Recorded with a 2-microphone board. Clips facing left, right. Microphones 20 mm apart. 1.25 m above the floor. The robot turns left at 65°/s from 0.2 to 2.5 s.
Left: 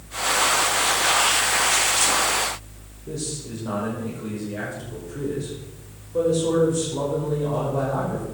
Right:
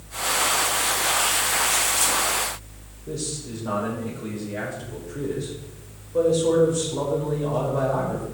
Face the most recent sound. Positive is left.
turn(degrees=-10)  # may be behind; listen again after turning